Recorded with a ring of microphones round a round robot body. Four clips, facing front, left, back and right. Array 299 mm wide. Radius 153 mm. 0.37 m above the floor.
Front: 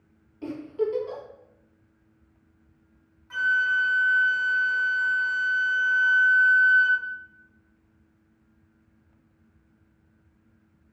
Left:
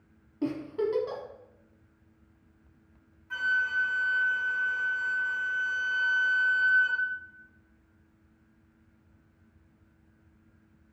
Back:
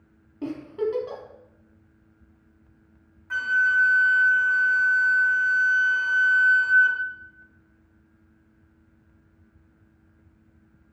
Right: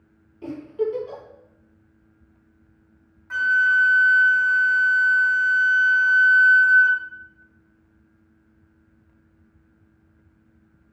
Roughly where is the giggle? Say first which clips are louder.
Right 4 dB, even; behind left.